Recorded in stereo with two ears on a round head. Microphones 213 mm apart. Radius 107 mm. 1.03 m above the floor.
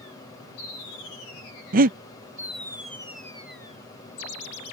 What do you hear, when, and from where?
1.7 s breathing: 35° right (ahead or behind)